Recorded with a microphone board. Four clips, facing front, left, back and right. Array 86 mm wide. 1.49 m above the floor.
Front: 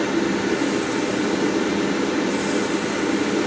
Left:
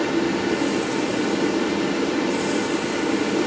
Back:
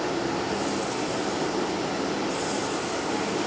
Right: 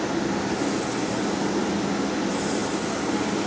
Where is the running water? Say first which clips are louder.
Left 4 dB, front 6 dB; 10° left, 5 m.